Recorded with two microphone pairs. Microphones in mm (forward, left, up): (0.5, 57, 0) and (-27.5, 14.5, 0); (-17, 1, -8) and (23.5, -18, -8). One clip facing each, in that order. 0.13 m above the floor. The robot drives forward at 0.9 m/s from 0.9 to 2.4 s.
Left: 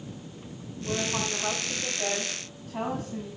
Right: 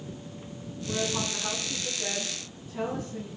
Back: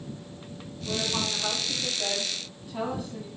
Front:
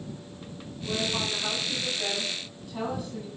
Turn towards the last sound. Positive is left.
turn(degrees=80)